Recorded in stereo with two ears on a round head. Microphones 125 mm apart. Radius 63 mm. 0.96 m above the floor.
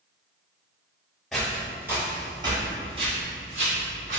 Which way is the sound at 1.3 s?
Centre (ahead or behind).